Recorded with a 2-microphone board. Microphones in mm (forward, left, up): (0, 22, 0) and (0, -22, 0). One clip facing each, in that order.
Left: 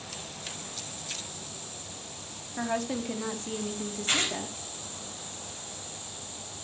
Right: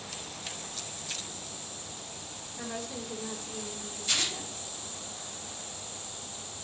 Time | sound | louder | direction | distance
2.6 | a woman speaking | left 8 dB | 85° left | 3.5 m
4.1 | tearing paper | left 3 dB | 40° left (ahead or behind) | 4 m